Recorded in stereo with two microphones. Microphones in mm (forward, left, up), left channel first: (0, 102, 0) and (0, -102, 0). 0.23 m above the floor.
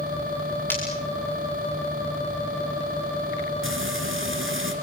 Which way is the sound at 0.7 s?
10° left (ahead or behind).